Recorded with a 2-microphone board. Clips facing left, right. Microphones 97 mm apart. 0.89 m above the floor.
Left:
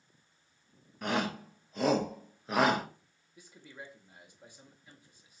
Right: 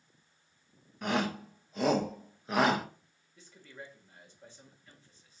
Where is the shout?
Centre (ahead or behind), 0.7 m.